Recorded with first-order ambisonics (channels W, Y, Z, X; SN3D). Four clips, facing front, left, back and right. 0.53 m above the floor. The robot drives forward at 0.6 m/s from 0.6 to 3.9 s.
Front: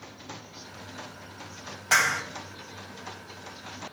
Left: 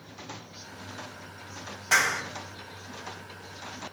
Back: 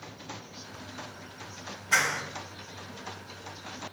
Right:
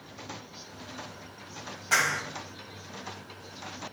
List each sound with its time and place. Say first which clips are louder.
1.9 s a clap: left 2 dB, front 3 dB; 20° left, 2 m